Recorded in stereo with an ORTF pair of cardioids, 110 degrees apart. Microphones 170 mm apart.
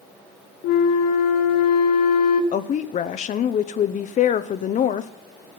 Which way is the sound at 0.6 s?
65° left.